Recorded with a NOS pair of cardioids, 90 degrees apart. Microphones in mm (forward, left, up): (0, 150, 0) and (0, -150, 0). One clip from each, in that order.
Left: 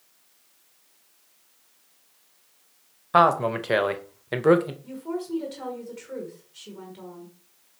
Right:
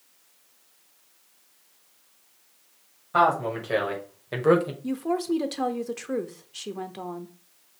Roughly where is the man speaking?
Ahead left.